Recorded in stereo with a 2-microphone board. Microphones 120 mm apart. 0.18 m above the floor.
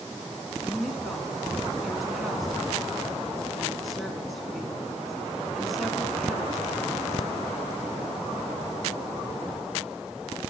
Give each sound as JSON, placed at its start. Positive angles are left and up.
{"t": 0.6, "sound": "a woman speaking", "side_deg": 0, "distance_m": 1.8}